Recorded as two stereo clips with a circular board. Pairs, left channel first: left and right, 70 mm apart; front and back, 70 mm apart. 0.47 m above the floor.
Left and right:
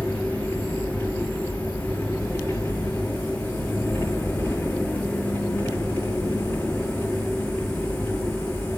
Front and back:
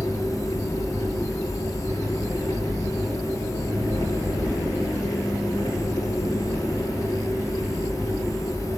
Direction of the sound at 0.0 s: 20° left.